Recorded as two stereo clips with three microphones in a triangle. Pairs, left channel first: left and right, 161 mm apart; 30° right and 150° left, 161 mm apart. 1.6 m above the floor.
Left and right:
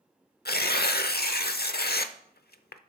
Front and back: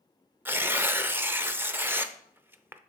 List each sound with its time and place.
0.5 s tearing paper: 75° left, 0.6 m